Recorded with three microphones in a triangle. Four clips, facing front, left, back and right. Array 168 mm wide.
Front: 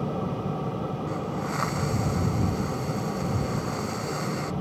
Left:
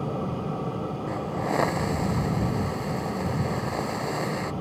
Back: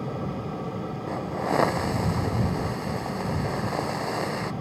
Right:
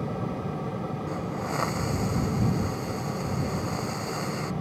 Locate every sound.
1.1 s a hiss: 155° left